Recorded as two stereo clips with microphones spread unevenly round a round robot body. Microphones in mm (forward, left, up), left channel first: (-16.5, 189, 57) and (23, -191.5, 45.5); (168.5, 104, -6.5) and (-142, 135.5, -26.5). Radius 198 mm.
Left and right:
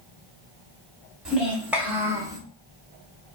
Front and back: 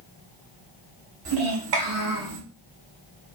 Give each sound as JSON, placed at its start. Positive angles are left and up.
{"t": 1.2, "sound": "a child speaking", "azimuth_deg": -170, "distance_m": 2.5}